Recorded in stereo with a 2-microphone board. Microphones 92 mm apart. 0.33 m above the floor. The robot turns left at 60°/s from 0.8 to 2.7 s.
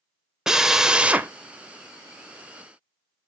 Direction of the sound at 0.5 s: 5° right (ahead or behind).